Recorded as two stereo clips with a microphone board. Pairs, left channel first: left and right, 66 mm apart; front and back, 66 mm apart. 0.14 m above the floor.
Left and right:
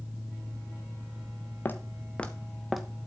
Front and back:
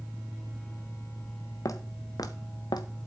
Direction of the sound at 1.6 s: 30° left.